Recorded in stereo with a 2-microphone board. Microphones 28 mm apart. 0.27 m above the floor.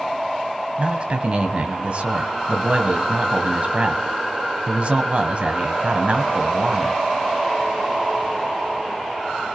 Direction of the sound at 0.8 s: 50° right (ahead or behind).